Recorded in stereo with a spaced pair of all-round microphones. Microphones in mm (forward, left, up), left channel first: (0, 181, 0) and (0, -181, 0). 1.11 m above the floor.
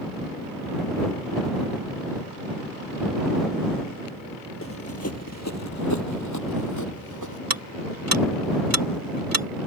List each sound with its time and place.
4.6 s running footsteps: 40° left (ahead or behind); by 7.4 s 60° left (ahead or behind)
7.5 s ticking: 80° right